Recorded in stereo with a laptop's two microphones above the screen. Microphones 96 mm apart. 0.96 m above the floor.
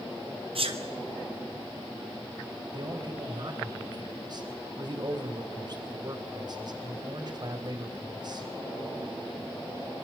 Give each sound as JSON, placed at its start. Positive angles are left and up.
{"t": 0.6, "sound": "a sneeze", "side_deg": -70, "distance_m": 3.0}
{"t": 2.7, "sound": "a man speaking", "side_deg": -45, "distance_m": 4.0}